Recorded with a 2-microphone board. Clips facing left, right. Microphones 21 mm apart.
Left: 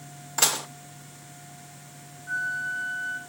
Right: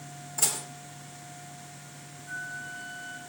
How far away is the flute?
About 3.5 m.